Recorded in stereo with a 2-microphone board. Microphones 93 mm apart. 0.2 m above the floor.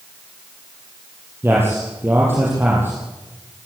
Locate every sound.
1.4 s a man speaking: 25° right (ahead or behind), 6.5 m